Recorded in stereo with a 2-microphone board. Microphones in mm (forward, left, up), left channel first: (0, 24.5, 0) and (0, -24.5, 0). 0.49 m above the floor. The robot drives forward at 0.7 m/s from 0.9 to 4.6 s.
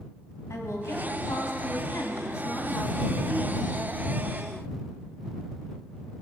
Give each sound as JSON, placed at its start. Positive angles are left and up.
{"t": 0.5, "sound": "a woman speaking", "side_deg": 75, "distance_m": 3.0}